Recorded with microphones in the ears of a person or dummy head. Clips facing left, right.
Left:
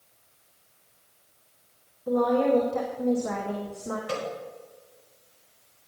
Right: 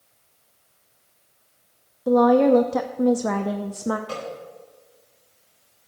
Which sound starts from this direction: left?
A snare drum, at 4.1 s.